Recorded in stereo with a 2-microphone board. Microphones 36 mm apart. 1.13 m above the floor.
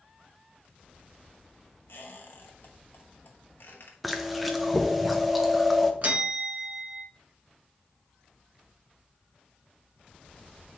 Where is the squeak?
80° left, 1.0 m.